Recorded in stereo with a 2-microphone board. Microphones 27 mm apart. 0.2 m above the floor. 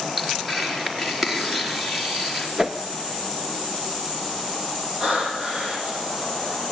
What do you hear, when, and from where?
0.2 s tearing paper: 15° right (ahead or behind), 4.5 m
2.6 s a whoosh: 20° right (ahead or behind), 0.9 m
5.0 s breathing: 35° right (ahead or behind), 7.5 m